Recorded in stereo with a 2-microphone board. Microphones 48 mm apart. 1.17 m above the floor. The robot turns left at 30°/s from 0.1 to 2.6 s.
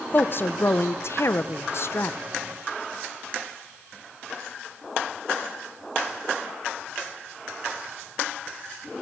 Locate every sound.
0.1 s a woman speaking: 130° left, 0.5 m; by 2.2 s 65° left, 0.5 m